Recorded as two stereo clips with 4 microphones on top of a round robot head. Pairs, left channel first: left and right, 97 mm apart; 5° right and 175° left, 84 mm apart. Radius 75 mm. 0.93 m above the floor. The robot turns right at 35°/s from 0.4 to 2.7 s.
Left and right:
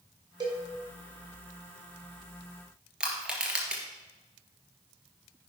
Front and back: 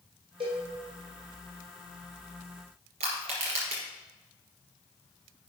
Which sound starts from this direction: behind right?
A cowbell, at 0.4 s.